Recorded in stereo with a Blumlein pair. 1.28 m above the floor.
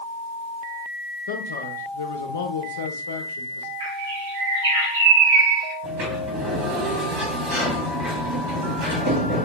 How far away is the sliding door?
About 1.9 m.